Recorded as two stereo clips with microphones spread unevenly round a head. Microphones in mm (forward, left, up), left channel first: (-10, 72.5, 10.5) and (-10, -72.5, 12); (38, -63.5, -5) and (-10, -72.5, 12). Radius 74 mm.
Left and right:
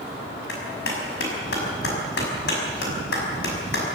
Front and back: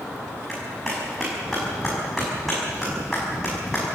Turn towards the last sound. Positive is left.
turn(degrees=100)